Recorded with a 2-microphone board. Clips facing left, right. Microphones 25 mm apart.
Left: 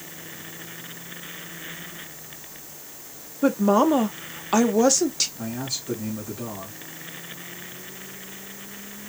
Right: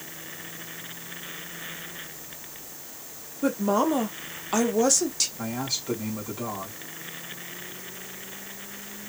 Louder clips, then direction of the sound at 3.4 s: Left 5 dB; 15° left (ahead or behind).